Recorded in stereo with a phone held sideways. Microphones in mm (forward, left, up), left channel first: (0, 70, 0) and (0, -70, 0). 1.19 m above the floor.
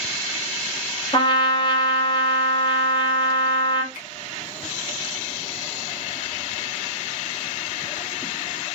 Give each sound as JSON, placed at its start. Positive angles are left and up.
{"t": 1.1, "sound": "a trumpet", "side_deg": 35, "distance_m": 1.0}
{"t": 3.9, "sound": "a finger snap", "side_deg": 85, "distance_m": 1.8}